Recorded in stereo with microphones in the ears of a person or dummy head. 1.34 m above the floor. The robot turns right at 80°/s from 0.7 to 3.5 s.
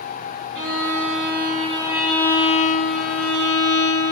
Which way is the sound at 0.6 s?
105° right.